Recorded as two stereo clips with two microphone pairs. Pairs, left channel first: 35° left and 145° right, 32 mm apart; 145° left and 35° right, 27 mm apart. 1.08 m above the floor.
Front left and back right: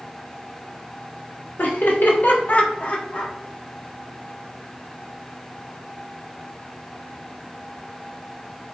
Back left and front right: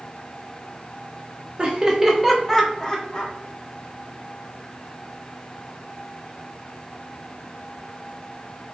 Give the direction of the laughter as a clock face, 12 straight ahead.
11 o'clock.